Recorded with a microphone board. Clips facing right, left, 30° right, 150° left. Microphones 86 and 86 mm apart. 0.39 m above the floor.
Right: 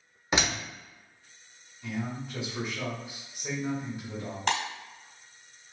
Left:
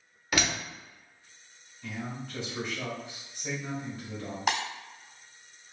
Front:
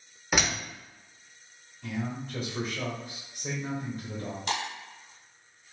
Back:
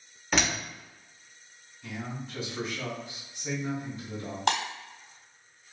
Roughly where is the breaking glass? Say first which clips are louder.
Even, back 6 dB; behind.